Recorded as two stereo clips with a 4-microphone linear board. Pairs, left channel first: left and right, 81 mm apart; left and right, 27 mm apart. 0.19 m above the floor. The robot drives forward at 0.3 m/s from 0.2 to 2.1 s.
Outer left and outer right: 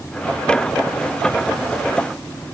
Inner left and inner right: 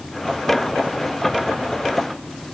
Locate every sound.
Only background noise.